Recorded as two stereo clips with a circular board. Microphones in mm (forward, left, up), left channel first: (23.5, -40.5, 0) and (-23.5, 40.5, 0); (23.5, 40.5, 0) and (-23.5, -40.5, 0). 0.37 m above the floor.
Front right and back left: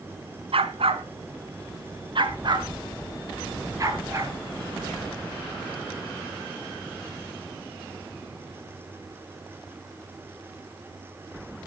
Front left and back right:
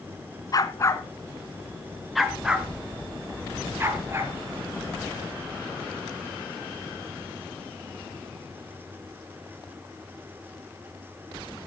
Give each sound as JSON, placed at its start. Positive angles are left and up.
{"t": 0.5, "sound": "a dog barking", "azimuth_deg": 110, "distance_m": 1.3}